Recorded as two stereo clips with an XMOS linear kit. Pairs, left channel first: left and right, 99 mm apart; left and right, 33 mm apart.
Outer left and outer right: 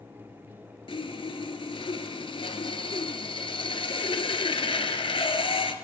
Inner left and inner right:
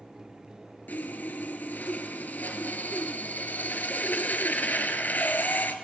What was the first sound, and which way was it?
Sawing, 65° left (ahead or behind).